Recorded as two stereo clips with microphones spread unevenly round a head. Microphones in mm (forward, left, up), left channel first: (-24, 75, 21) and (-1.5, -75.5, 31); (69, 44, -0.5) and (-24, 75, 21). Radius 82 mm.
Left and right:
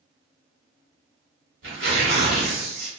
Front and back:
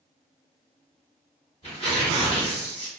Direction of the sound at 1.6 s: 80° right.